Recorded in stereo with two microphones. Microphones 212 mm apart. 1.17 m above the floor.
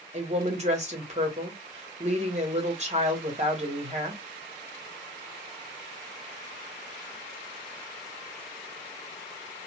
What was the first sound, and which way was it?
A woman speaking, 35° right (ahead or behind).